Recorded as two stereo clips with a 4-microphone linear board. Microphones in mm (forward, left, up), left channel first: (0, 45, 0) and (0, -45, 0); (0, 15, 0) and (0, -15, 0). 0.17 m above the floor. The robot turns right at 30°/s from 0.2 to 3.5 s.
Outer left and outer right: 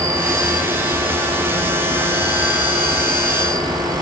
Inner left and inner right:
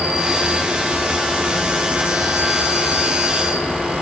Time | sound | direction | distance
0.0 | an insect | 145° right | 3 m